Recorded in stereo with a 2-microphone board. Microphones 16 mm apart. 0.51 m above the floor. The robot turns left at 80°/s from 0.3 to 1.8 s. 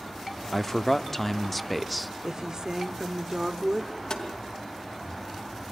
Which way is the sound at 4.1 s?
60° left (ahead or behind).